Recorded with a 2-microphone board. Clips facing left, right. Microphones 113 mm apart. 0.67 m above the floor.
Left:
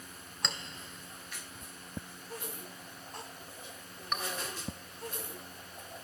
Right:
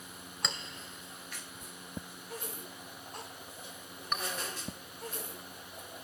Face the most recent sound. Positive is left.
turn(degrees=0)  # may be behind; listen again after turning